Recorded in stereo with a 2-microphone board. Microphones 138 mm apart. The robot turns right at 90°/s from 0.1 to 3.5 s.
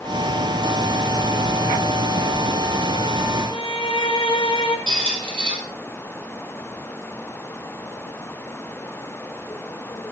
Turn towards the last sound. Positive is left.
turn(degrees=-40)  # may be behind; listen again after turning